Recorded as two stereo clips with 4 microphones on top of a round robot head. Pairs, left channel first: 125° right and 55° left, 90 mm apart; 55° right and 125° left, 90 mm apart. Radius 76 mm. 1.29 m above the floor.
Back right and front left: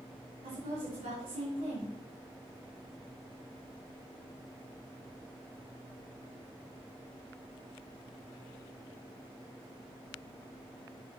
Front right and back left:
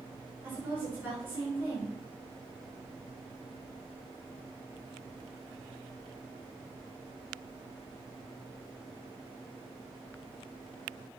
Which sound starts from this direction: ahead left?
A woman speaking, at 0.4 s.